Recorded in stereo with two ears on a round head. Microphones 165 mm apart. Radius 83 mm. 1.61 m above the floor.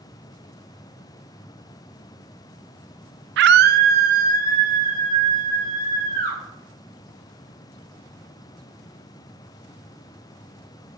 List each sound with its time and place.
3.4 s a scream: 65° right (ahead or behind), 0.5 m; by 6.4 s 45° right (ahead or behind), 4 m